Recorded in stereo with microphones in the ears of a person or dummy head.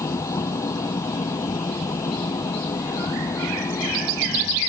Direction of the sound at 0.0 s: 15° left (ahead or behind).